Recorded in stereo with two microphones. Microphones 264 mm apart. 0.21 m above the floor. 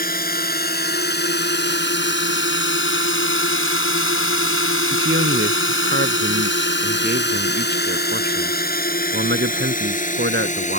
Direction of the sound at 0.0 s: 35° left (ahead or behind).